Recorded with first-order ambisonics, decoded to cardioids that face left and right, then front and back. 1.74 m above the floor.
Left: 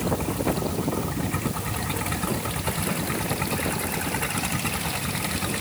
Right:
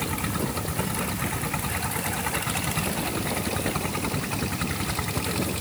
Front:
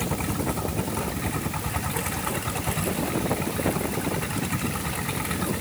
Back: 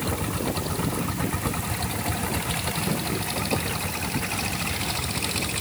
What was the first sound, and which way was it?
Only background noise.